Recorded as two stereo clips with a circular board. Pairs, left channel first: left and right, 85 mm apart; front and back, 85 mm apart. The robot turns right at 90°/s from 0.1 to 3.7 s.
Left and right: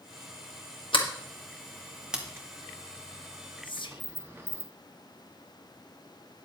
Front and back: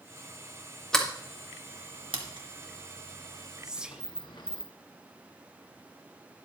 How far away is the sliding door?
About 1.5 m.